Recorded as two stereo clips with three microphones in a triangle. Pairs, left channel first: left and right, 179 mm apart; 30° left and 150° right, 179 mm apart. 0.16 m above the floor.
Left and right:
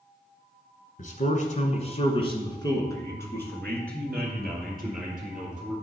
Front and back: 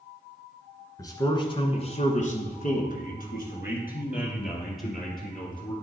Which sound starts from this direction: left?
A man speaking, at 1.0 s.